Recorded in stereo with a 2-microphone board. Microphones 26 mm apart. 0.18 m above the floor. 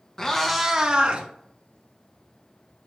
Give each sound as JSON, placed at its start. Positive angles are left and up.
{"t": 0.2, "sound": "a cat meowing", "side_deg": 25, "distance_m": 0.8}